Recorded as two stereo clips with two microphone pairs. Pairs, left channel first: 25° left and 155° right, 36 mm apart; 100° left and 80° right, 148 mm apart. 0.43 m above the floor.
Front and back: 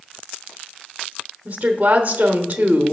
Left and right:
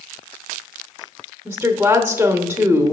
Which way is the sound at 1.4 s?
145° right.